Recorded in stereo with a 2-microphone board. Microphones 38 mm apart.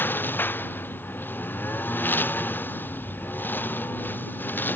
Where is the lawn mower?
70° left (ahead or behind); by 4.8 s 65° left (ahead or behind).